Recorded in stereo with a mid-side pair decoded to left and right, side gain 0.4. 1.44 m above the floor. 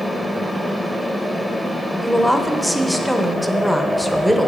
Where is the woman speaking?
Straight ahead, 1.0 m.